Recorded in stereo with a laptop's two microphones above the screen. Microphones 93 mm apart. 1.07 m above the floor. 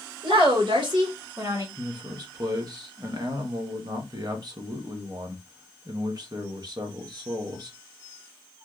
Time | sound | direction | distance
0.2 | a woman speaking | 65° right (ahead or behind) | 1.6 m
1.8 | a man speaking | 45° right (ahead or behind) | 0.8 m